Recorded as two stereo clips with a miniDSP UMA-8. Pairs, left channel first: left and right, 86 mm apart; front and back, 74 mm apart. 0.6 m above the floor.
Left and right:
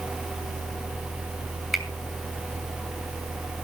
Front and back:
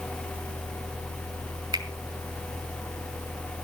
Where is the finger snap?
175° right, 2.5 m.